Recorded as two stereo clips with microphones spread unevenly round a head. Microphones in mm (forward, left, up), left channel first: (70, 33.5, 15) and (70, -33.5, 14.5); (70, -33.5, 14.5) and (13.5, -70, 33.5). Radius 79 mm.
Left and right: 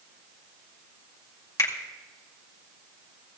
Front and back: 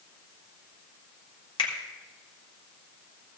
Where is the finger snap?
55° left, 2 m.